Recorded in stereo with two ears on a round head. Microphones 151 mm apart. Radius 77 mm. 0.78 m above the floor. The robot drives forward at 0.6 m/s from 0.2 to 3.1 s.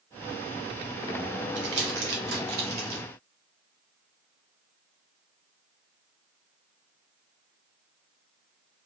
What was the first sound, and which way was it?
Crumpling, 90° right.